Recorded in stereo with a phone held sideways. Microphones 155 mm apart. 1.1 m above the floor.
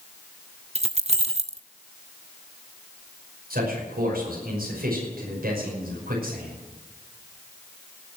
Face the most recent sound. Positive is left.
turn(degrees=-80)